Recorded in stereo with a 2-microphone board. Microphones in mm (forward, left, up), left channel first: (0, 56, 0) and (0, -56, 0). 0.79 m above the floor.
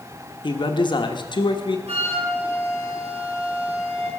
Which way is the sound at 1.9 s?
75° right (ahead or behind).